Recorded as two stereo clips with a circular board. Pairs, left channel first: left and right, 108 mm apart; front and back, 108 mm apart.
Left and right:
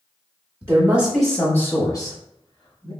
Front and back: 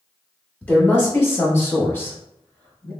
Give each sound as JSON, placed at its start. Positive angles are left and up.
{"t": 0.6, "sound": "a woman speaking", "azimuth_deg": -55, "distance_m": 1.1}